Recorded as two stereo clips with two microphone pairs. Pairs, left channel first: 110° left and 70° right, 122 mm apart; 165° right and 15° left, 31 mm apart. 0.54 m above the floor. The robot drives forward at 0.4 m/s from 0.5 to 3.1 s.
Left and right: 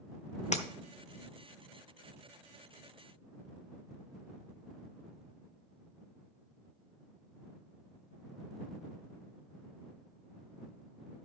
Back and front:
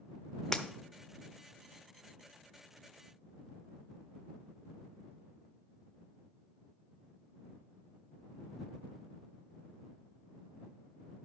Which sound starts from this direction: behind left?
Breaking glass, at 0.5 s.